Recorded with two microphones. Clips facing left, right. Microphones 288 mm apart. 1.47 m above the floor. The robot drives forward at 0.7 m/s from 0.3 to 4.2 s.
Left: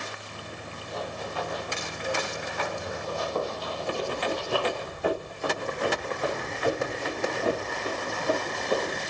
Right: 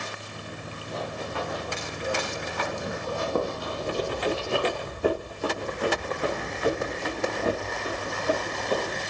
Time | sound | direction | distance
0.9 | running footsteps | 75° right (ahead or behind) | 6.5 m
3.9 | running footsteps | 65° right (ahead or behind) | 4.5 m